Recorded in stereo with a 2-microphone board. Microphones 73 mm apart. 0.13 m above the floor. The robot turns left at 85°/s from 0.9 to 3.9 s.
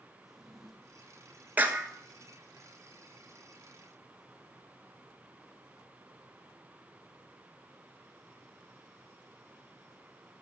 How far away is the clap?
About 1.3 m.